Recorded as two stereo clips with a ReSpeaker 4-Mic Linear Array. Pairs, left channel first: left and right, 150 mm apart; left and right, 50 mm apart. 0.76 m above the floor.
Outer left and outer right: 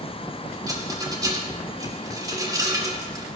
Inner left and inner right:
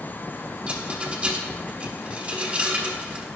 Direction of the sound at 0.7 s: 25° right (ahead or behind).